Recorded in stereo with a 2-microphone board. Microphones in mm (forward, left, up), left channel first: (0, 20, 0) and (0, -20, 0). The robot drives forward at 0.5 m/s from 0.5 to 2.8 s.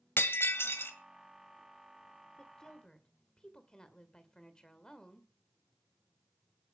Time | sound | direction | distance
0.2 | breaking glass | 75° left (ahead or behind) | 1.7 m
2.4 | a woman speaking | 20° left (ahead or behind) | 1.9 m